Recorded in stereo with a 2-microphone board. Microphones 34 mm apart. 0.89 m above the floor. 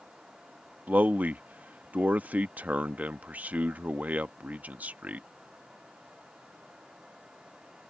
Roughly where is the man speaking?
Right.